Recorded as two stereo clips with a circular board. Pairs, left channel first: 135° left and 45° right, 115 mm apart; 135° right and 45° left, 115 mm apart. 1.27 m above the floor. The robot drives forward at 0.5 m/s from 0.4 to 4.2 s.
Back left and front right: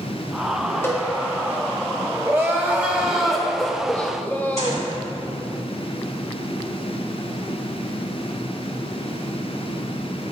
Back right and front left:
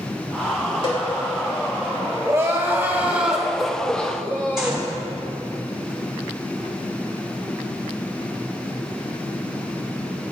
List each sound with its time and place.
0.8 s a cowbell: 160° right, 1.9 m
2.2 s crying: 5° left, 1.1 m; by 4.9 s 170° left, 1.0 m
4.6 s a gunshot: 40° right, 2.5 m